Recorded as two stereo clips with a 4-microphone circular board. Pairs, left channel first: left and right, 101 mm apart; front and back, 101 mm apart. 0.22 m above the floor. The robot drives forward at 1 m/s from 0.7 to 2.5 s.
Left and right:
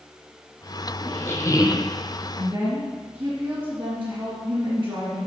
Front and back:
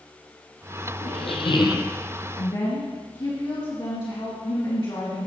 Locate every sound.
1.0 s a squeak: 20° left, 1.3 m; by 1.9 s 60° left, 0.6 m
2.4 s a woman speaking: 25° right, 2.5 m